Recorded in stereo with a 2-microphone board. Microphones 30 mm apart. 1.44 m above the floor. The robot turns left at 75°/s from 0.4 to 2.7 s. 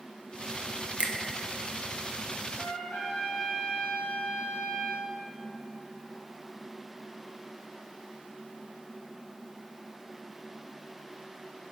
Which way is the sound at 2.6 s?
60° left (ahead or behind).